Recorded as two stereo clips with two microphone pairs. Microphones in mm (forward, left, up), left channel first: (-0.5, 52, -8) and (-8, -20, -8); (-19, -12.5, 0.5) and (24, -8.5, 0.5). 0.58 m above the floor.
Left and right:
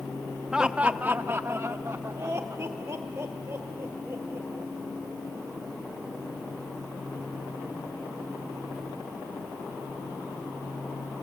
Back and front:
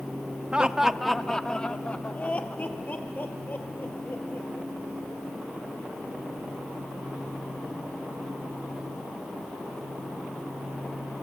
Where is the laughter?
25° right, 0.8 m; by 4.7 s 145° right, 2.5 m.